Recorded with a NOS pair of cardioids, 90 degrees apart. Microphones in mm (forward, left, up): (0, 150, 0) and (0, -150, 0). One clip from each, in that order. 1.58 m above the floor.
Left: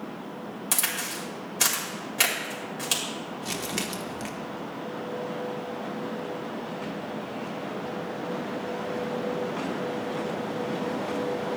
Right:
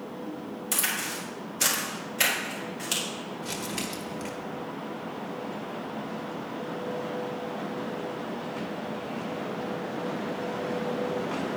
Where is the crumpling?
35° left, 1.4 m.